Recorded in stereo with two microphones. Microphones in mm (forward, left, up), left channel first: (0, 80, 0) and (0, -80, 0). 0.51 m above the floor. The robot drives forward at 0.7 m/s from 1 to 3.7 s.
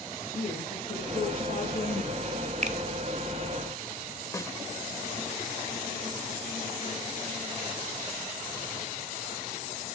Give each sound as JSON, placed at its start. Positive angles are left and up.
{"t": 0.3, "sound": "a woman speaking", "side_deg": 65, "distance_m": 8.5}
{"t": 2.6, "sound": "a finger snap", "side_deg": -45, "distance_m": 0.9}
{"t": 4.3, "sound": "a snare drum", "side_deg": 20, "distance_m": 1.2}